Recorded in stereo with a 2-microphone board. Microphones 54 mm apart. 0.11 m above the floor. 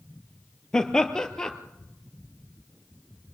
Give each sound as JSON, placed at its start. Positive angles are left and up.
{"t": 0.7, "sound": "laughter", "side_deg": 10, "distance_m": 2.5}